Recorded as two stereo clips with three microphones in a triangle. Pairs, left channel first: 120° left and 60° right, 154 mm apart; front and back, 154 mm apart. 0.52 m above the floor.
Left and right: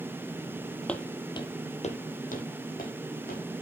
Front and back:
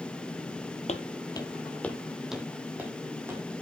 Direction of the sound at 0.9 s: 40° left.